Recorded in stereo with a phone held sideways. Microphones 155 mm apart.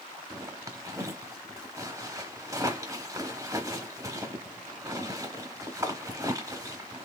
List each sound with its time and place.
0.3 s a zipper: 20° right (ahead or behind), 1.0 m